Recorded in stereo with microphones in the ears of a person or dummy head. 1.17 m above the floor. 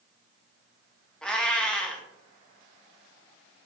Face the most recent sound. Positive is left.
turn(degrees=5)  # may be behind; listen again after turning